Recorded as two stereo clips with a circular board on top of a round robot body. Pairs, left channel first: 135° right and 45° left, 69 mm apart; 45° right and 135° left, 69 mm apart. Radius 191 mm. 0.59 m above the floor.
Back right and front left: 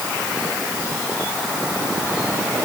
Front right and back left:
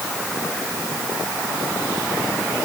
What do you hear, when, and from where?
Only background noise.